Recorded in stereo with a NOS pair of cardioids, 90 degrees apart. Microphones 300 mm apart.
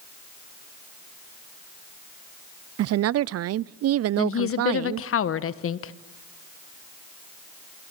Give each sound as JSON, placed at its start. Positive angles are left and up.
{"t": 2.8, "sound": "a woman speaking", "azimuth_deg": -55, "distance_m": 0.5}
{"t": 4.2, "sound": "a woman speaking", "azimuth_deg": 50, "distance_m": 1.2}